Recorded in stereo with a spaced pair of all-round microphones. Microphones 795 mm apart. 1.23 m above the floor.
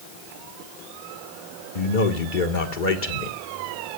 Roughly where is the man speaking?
Left.